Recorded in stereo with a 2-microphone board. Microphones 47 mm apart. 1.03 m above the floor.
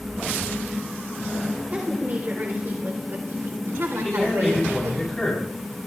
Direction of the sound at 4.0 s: Centre (ahead or behind).